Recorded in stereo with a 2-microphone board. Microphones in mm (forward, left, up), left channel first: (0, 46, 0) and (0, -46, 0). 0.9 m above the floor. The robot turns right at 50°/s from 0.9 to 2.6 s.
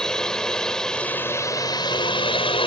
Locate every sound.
0.0 s a drone: 5° left; by 2.7 s 90° left